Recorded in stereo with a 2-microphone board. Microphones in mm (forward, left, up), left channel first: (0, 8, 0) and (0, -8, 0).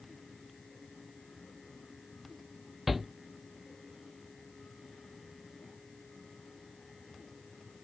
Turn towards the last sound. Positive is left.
turn(degrees=-15)  # may be behind; listen again after turning